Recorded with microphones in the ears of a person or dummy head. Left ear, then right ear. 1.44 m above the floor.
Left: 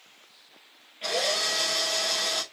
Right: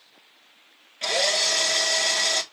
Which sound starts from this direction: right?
A drill, at 1.0 s.